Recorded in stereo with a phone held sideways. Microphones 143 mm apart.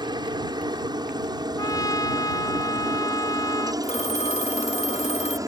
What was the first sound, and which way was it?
A helicopter, 30° right (ahead or behind).